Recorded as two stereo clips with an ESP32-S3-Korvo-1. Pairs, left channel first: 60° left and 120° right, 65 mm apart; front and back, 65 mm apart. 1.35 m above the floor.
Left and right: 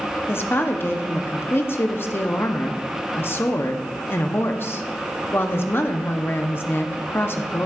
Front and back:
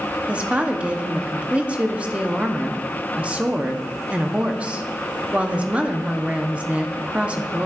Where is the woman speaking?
110° left, 0.7 m.